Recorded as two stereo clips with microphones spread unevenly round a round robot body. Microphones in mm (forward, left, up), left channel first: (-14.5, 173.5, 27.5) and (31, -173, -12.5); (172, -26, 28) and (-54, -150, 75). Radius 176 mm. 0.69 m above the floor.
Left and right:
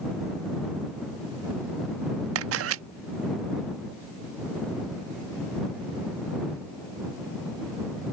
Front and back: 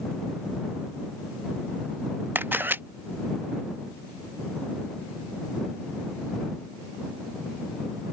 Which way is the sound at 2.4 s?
60° right.